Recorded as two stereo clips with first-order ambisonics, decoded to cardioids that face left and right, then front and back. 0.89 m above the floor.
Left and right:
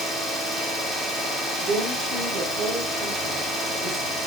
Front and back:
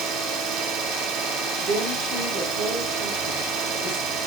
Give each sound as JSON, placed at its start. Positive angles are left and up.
{"t": 0.0, "sound": "an engine running", "azimuth_deg": 175, "distance_m": 1.9}
{"t": 1.6, "sound": "a woman speaking", "azimuth_deg": -140, "distance_m": 3.5}